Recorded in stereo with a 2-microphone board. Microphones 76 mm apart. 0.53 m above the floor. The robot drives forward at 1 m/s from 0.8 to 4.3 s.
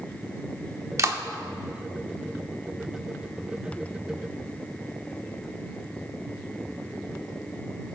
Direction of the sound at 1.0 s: 45° right (ahead or behind).